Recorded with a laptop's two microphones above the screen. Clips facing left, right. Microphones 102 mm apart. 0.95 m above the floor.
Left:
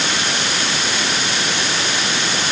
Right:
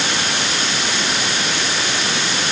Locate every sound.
Only background noise.